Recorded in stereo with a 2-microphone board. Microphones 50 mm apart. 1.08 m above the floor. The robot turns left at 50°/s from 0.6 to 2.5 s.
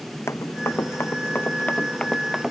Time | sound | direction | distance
0.3 | running footsteps | 65° left (ahead or behind) | ?